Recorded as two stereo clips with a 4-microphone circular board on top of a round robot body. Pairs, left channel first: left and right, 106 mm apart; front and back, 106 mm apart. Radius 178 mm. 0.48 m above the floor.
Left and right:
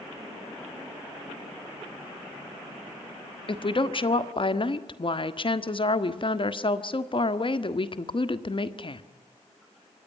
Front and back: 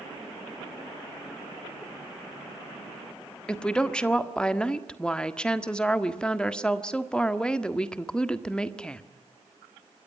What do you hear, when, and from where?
3.5 s a woman speaking: 80° left, 1.7 m